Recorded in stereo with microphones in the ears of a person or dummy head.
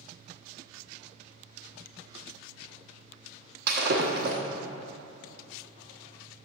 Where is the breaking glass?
60° right (ahead or behind), 1.1 m.